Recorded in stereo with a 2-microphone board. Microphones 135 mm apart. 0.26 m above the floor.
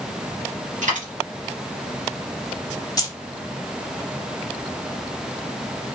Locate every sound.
0.8 s a dropped coin: 75° right (ahead or behind), 1.9 m
3.0 s keys jangling: 25° left (ahead or behind), 0.7 m